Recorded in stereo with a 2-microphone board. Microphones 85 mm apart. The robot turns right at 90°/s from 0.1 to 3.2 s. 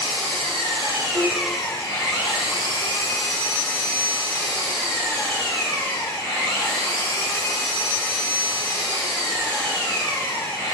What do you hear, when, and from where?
0.0 s an engine running: 125° right, 4.5 m; by 10.7 s 150° left, 4.5 m
1.1 s a piano: 65° right (ahead or behind), 4 m; by 1.4 s 40° right (ahead or behind), 4 m